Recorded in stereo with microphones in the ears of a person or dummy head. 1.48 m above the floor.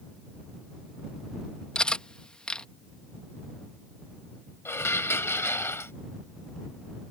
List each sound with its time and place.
1.8 s cutlery clinking: 10° left (ahead or behind)
4.7 s dishes clattering: 15° left (ahead or behind)